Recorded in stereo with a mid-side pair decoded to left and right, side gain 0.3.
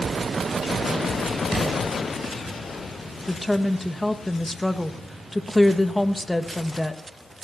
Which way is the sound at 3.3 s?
15° left.